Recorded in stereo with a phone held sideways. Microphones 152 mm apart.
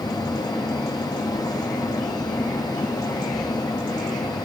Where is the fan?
25° left (ahead or behind), 0.8 m.